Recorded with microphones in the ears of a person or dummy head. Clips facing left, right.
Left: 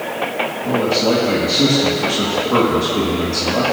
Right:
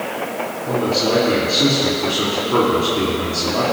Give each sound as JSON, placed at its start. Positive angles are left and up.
{"t": 0.7, "sound": "a man speaking", "side_deg": 75, "distance_m": 1.9}